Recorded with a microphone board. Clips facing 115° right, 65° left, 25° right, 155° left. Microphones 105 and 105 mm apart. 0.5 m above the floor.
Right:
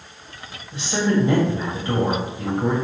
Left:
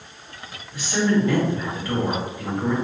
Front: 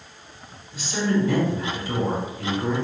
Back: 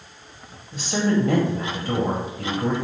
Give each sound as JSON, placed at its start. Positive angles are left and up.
{"t": 0.7, "sound": "a woman speaking", "azimuth_deg": -175, "distance_m": 2.0}